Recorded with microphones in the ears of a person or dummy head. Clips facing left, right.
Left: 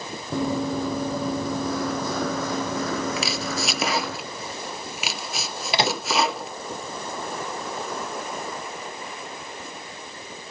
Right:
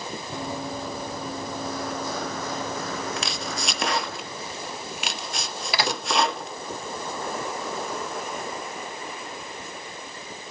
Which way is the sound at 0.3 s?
65° left (ahead or behind).